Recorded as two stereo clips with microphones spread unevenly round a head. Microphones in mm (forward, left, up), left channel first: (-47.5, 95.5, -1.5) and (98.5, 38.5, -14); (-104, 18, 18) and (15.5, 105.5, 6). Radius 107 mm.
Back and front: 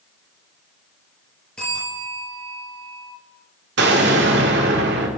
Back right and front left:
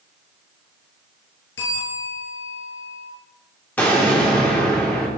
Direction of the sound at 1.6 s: 115° right.